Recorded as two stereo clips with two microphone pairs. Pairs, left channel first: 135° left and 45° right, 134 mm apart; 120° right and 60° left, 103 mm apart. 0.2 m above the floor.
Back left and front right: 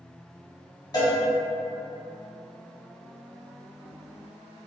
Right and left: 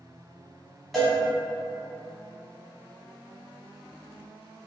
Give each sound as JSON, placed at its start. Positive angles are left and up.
{"t": 0.9, "sound": "a cowbell", "azimuth_deg": 150, "distance_m": 1.1}